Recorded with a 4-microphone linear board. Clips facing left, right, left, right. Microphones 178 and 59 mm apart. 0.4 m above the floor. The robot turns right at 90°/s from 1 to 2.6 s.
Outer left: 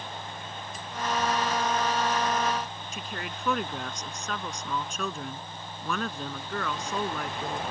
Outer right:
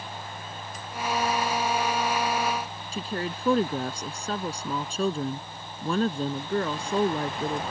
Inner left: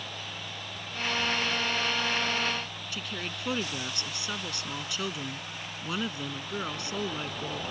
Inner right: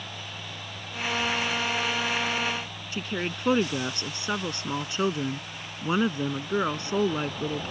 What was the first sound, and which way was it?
A woman speaking, 30° right (ahead or behind).